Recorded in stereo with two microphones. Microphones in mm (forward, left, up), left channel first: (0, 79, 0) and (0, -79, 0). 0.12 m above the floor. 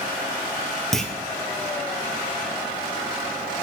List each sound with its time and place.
0.9 s a clunk: centre (ahead or behind), 1.3 m